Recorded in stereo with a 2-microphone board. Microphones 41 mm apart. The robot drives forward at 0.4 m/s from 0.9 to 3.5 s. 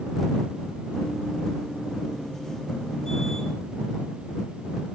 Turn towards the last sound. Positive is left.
No sound to turn to.